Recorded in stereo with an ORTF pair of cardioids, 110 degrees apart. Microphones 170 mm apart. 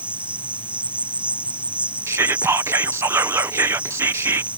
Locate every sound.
0.0 s an insect: 5° right
2.1 s whispering: 15° right